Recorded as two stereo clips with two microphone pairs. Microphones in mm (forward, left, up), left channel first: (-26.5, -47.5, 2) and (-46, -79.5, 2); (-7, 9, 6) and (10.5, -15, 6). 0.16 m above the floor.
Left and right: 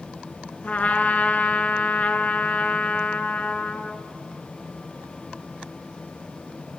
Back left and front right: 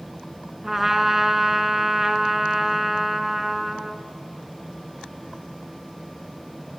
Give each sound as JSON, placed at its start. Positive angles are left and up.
{"t": 0.6, "sound": "a trumpet", "azimuth_deg": 20, "distance_m": 0.8}